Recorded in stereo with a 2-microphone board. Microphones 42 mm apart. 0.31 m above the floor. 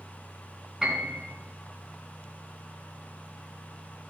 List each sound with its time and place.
0.8 s a piano: 5° right (ahead or behind), 3.5 m